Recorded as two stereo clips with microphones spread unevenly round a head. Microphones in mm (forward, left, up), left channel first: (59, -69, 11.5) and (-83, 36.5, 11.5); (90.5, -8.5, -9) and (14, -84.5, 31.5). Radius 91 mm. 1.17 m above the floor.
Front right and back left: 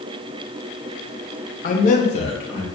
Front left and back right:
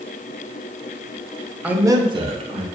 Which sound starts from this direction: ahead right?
A man speaking, at 1.6 s.